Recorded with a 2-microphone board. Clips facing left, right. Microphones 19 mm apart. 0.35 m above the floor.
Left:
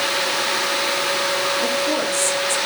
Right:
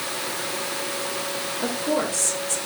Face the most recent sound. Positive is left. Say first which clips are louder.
# left 4 dB
turn(degrees=5)  # may be behind; listen again after turning